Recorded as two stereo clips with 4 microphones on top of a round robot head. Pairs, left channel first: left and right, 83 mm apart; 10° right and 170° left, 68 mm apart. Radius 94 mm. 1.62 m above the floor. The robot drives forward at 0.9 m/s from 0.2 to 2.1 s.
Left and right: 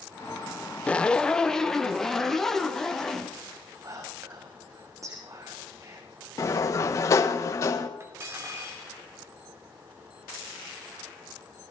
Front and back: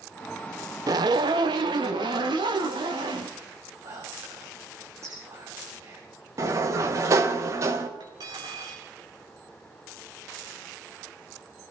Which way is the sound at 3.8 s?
140° right.